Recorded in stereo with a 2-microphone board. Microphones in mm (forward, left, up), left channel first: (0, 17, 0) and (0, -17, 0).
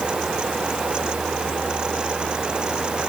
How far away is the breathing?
I don't hear breathing.